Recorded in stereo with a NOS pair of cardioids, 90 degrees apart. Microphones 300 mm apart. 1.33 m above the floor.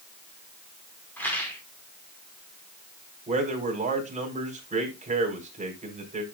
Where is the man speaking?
25° right, 4.5 m.